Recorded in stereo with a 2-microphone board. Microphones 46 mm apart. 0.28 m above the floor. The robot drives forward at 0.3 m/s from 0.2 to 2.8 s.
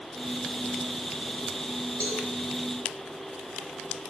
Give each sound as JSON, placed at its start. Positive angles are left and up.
{"t": 2.0, "sound": "a cowbell", "side_deg": 40, "distance_m": 0.8}